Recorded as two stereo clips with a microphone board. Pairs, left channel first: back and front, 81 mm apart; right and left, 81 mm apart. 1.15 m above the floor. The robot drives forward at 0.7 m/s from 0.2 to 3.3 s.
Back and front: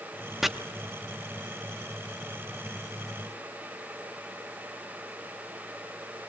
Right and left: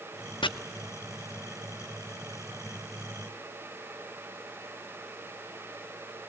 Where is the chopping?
85° right, 0.7 m; by 0.5 s 90° right, 0.7 m.